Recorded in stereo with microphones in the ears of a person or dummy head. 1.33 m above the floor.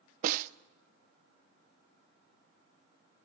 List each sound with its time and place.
0.2 s a snare drum: 40° right (ahead or behind), 0.7 m